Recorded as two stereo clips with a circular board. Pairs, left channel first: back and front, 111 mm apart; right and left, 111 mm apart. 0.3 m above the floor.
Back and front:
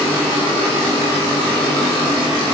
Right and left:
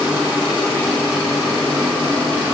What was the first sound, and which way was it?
Only background noise.